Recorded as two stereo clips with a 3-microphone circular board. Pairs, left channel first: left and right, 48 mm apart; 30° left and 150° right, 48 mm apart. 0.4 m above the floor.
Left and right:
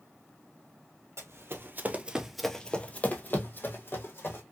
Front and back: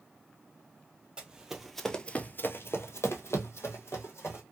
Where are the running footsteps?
80° right, 0.8 m; by 4.4 s 55° left, 1.4 m.